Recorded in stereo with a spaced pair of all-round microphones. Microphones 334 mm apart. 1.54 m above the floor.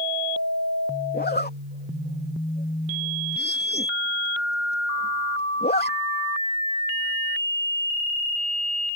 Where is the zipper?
30° left (ahead or behind).